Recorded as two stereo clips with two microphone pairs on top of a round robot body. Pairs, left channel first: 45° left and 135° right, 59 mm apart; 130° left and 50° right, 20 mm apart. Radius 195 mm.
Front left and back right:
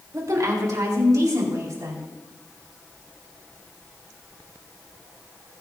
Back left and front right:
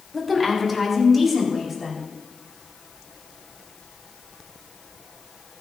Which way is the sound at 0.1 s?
140° right.